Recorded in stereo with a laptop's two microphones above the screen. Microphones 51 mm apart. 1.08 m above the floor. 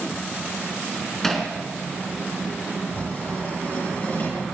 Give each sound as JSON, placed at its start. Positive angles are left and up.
{"t": 1.2, "sound": "hammering", "side_deg": 5, "distance_m": 3.0}
{"t": 2.9, "sound": "writing", "side_deg": 40, "distance_m": 10.0}